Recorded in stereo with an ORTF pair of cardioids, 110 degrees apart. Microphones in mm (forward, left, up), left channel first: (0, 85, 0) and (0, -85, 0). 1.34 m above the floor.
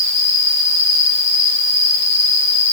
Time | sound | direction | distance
0.0 | an insect | 15° left | 2 m